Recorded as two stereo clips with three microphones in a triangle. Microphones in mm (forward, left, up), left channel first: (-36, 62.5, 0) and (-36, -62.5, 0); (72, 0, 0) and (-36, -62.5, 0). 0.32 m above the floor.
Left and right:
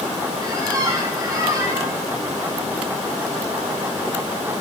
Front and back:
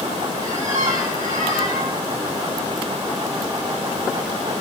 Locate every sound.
0.4 s a squeak: 150° right, 6.5 m